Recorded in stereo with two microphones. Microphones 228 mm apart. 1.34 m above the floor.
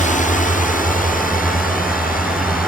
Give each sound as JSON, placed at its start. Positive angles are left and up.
{"t": 0.0, "sound": "a drone", "side_deg": 35}